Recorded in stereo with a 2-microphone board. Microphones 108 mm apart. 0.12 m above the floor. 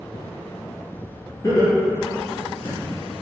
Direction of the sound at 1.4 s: 35° left (ahead or behind).